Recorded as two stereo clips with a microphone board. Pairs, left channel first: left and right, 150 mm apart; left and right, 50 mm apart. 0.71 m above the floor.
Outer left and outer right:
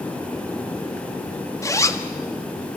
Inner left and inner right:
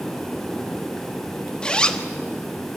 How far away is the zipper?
About 1.2 m.